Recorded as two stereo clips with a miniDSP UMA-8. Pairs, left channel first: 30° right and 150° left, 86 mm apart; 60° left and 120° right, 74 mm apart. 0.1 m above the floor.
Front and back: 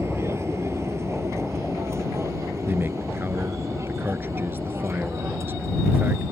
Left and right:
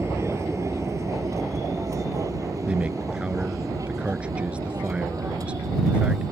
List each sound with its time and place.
0.0 s an aircraft: 160° right; by 6.3 s 155° right
2.7 s a man speaking: 175° right